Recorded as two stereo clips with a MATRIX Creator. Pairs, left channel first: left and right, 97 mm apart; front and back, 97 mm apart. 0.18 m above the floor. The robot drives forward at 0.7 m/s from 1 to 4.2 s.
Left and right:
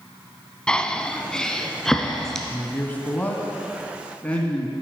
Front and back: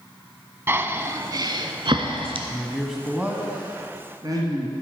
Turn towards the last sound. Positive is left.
turn(degrees=160)